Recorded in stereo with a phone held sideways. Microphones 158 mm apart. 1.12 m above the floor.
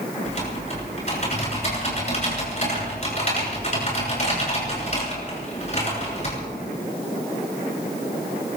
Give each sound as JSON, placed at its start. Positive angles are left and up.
{"t": 0.2, "sound": "typing on a keyboard", "side_deg": 45, "distance_m": 7.0}